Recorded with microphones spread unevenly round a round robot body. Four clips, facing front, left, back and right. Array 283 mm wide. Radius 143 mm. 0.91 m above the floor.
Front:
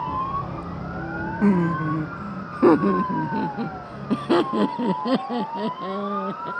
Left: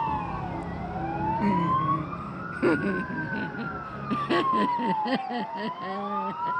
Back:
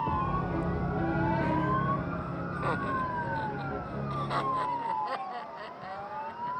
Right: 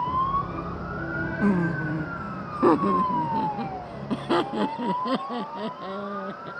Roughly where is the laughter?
Ahead.